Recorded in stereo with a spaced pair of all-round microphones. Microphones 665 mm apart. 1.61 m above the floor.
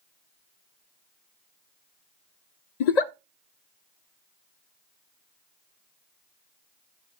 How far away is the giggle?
About 0.6 m.